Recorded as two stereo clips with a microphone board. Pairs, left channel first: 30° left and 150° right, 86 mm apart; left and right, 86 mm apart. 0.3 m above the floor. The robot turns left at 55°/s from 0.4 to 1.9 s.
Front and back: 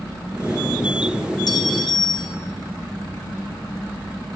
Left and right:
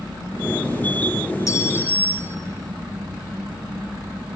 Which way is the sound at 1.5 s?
50° left.